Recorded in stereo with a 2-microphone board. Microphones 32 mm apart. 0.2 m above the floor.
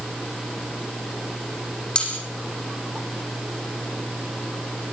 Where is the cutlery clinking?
30° left (ahead or behind), 7 m.